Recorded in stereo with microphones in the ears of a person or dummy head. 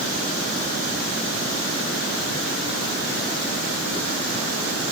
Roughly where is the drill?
I don't hear a drill.